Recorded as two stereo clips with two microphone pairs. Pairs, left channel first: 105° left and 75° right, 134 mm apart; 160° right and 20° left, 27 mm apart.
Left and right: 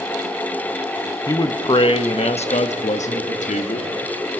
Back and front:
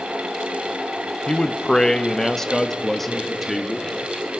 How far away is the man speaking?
About 1.0 m.